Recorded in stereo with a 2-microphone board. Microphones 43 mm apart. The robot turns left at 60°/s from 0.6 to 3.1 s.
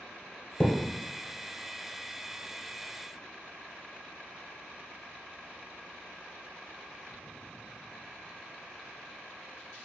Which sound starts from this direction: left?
A thud, at 0.6 s.